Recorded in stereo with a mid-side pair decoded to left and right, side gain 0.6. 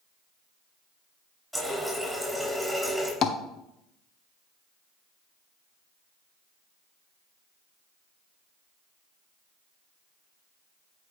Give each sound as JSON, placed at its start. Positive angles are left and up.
{"t": 1.5, "sound": "a running tap", "azimuth_deg": 0, "distance_m": 5.0}
{"t": 3.2, "sound": "tapping", "azimuth_deg": 50, "distance_m": 1.0}